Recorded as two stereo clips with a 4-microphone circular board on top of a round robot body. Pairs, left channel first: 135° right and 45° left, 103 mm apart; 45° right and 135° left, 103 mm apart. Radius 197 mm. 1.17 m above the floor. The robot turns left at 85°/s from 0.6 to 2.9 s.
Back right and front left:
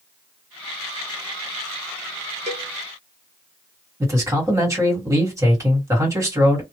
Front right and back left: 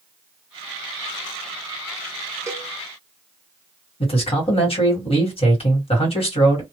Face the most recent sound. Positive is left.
turn(degrees=-15)